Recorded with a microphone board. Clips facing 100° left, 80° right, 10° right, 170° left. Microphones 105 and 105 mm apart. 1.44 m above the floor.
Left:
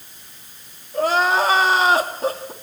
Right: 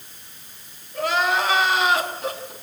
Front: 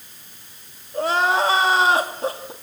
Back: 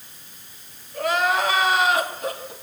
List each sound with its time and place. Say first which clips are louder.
0.9 s crying: left 4 dB, front 2 dB; 50° left, 2.5 m